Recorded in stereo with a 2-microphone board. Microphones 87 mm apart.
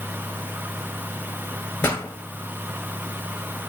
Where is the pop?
25° left (ahead or behind), 0.6 m.